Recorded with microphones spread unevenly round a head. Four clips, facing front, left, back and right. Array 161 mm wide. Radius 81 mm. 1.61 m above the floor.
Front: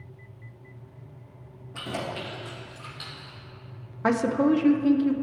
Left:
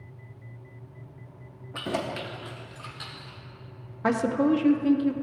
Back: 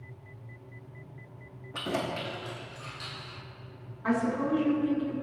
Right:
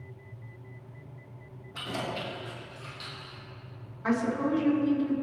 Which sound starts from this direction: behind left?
Keys jangling, at 1.7 s.